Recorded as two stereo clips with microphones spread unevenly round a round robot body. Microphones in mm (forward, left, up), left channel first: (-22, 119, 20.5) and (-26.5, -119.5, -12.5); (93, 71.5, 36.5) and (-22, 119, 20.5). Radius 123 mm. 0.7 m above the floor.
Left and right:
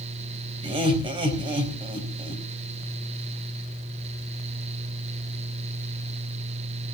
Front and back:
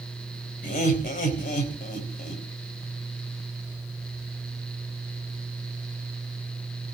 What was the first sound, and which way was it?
Laughter, 20° right.